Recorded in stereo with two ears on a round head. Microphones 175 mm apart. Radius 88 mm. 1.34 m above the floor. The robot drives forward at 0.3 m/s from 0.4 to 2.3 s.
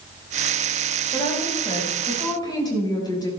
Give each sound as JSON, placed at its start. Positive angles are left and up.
{"t": 1.1, "sound": "a woman speaking", "side_deg": 25, "distance_m": 4.5}